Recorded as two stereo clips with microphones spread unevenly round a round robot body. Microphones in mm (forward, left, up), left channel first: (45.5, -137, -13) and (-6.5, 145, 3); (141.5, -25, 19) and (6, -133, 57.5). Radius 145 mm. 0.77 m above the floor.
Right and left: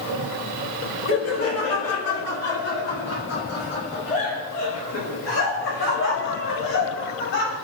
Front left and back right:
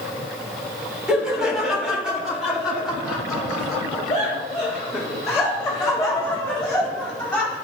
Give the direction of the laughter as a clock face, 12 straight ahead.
2 o'clock.